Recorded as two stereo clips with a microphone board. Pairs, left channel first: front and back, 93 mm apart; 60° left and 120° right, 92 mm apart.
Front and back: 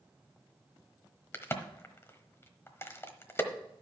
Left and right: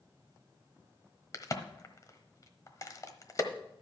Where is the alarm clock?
No alarm clock in this recording.